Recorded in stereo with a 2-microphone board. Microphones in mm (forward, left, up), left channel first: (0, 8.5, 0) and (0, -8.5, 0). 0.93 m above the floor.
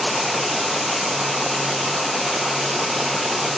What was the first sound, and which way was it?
Only background noise.